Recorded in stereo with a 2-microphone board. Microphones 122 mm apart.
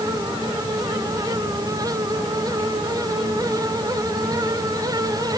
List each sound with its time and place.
Only background noise.